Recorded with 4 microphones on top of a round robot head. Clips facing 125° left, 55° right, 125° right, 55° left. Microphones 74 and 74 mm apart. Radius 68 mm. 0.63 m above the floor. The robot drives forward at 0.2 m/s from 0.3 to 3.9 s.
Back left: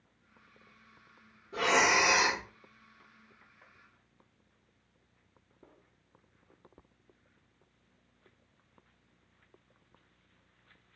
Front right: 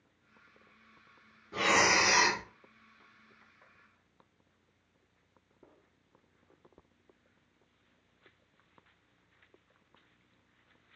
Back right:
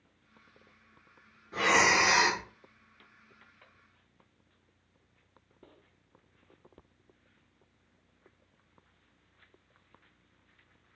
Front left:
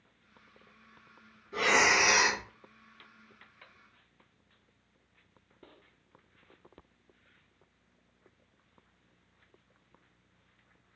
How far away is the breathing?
About 1.6 m.